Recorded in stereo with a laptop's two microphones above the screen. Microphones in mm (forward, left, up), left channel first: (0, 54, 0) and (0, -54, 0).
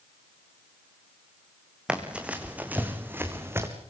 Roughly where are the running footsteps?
Centre.